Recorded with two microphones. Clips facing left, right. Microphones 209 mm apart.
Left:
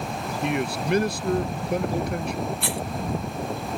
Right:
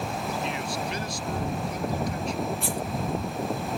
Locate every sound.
0.4 s a man speaking: 60° left (ahead or behind)
2.6 s a rattle: 75° left (ahead or behind)